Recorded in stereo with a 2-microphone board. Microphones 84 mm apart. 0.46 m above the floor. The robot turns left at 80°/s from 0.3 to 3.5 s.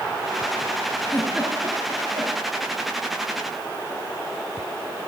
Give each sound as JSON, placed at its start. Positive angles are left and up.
{"t": 1.0, "sound": "a giggle", "side_deg": 15, "distance_m": 8.5}